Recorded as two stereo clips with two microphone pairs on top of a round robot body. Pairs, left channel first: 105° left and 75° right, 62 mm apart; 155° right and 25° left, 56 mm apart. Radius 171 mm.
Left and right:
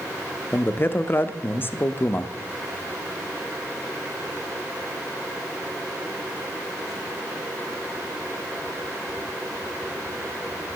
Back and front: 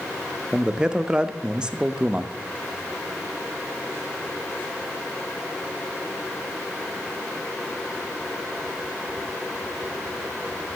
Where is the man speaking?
90° left, 0.7 m.